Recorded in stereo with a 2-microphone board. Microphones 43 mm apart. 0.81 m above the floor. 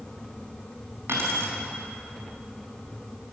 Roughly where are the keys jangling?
Right.